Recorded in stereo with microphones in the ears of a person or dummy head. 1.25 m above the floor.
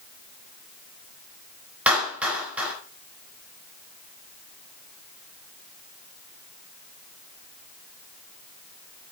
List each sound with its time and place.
1.9 s a clap: 5° right (ahead or behind), 4 m